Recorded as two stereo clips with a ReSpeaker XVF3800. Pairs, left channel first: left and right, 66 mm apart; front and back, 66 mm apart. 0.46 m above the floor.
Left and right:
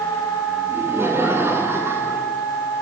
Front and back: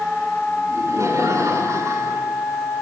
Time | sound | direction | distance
0.7 | laughter | 145° right | 6.5 m